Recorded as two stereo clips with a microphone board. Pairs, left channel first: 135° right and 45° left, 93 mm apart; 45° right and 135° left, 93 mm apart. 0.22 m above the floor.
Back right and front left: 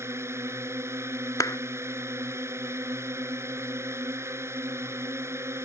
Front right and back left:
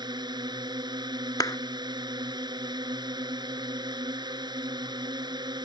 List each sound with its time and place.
0.0 s a drone: 105° left
1.4 s a clap: 90° right